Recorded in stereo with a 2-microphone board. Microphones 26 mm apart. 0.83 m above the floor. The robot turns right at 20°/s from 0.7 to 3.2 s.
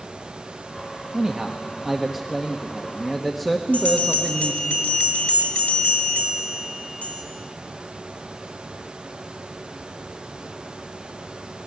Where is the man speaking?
40° right, 1.2 m; by 4.7 s 5° left, 1.2 m.